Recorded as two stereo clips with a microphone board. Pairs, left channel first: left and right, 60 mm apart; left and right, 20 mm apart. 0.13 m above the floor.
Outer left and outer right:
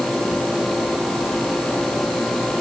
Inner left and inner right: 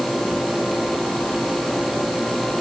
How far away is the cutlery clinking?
No cutlery clinking in this recording.